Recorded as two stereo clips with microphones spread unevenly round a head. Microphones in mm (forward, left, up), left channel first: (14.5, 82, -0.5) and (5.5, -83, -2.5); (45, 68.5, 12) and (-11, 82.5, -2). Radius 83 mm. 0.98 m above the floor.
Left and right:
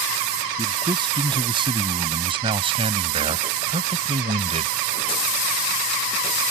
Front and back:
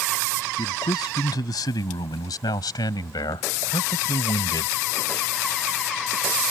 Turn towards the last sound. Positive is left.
turn(degrees=-40)